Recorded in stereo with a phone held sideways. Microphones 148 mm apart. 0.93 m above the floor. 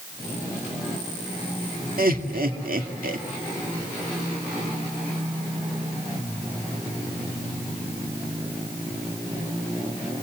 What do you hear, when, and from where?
2.0 s laughter: 75° right (ahead or behind), 2.5 m